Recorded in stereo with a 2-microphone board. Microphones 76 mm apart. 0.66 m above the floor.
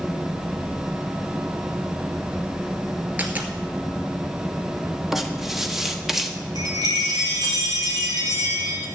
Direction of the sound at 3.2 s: 20° right (ahead or behind).